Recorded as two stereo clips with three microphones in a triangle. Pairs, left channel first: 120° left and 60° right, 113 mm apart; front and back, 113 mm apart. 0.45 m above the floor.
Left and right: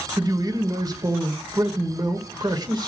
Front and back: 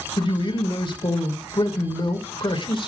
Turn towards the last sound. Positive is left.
turn(degrees=-20)